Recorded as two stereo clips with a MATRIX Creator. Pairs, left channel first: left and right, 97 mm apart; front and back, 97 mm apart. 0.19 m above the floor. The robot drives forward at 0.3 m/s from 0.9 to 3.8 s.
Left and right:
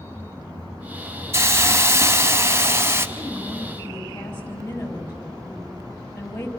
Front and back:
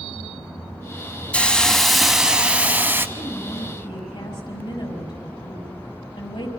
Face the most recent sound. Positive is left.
turn(degrees=25)